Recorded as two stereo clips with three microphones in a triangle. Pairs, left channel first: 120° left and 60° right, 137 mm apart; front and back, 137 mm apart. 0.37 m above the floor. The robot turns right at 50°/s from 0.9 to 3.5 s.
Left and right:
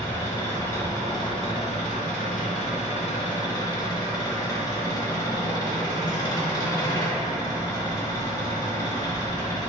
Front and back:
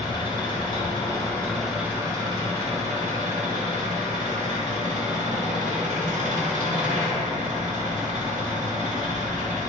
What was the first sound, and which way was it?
An engine running, 50° left.